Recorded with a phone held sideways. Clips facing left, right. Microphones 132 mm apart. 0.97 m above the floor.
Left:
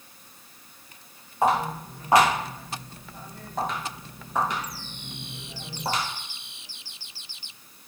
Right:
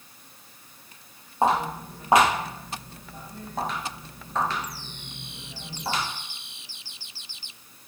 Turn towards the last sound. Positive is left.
turn(degrees=45)  # may be behind; listen again after turning